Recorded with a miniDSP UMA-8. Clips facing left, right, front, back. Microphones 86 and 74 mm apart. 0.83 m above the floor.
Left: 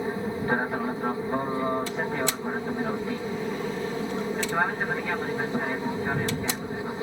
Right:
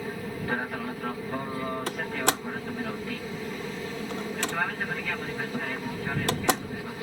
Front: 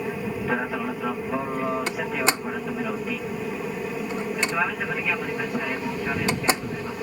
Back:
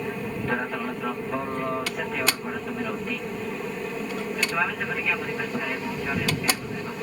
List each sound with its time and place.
0.0 s an aircraft: 80° left
1.9 s a door slam: 65° right